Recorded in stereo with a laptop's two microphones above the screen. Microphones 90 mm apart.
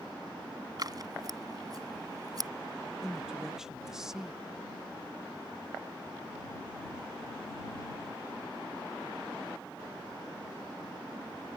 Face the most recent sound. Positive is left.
turn(degrees=-5)  # may be behind; listen again after turning